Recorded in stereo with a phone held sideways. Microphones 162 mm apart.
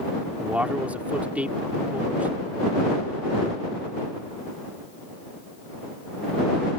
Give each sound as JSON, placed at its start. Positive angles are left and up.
{"t": 0.4, "sound": "a man speaking", "side_deg": -10}